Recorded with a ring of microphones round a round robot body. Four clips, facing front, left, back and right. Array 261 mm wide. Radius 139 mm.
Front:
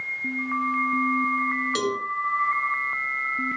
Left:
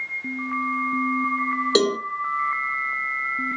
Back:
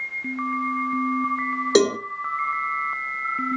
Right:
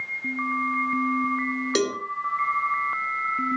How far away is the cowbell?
About 0.9 m.